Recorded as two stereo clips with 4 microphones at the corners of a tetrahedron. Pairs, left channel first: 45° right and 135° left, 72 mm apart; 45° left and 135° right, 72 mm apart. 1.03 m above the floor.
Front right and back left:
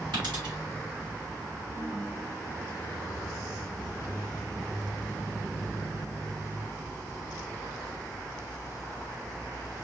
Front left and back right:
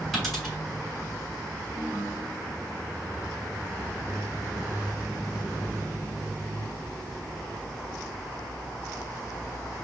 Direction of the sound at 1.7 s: 120° left.